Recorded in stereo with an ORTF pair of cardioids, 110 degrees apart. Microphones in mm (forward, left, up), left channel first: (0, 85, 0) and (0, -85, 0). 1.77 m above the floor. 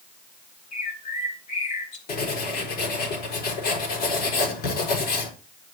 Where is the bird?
45° left, 3 m.